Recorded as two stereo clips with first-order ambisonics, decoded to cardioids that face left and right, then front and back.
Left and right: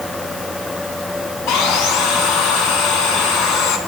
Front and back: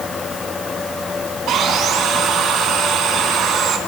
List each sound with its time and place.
1.5 s sawing: 130° left, 2 m